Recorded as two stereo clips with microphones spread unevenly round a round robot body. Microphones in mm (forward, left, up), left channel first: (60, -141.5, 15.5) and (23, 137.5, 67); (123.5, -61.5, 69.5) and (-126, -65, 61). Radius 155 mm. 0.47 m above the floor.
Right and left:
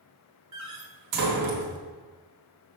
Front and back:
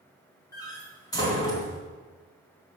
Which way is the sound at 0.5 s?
75° left.